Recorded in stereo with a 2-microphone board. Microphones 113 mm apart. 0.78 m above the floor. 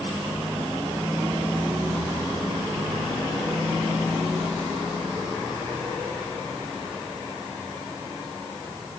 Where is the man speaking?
No man speaking in this recording.